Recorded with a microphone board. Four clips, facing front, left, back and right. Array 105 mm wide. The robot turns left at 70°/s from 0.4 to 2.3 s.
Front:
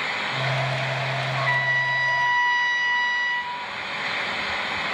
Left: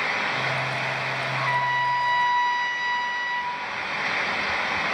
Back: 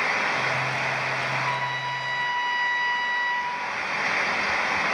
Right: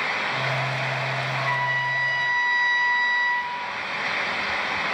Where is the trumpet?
10° left, 1.2 m; by 3.5 s 55° right, 1.2 m.